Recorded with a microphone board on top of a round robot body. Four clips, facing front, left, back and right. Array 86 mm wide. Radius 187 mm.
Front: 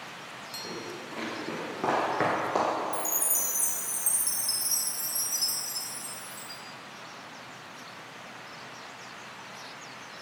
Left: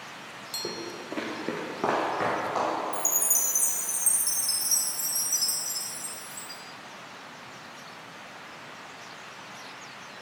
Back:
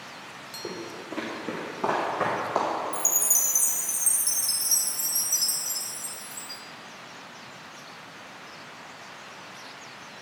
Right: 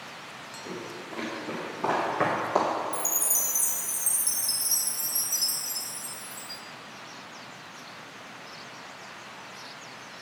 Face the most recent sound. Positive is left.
turn(degrees=-170)